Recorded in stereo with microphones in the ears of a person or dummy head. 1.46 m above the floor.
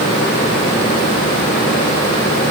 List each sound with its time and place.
Only background noise.